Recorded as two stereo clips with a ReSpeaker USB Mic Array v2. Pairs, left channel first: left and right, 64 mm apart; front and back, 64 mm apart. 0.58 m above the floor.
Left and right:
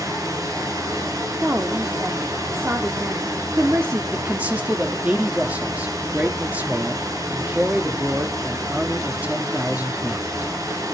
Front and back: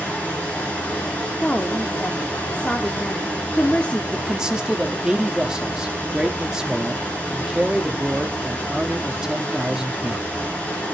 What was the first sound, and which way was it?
Running water, 70° right.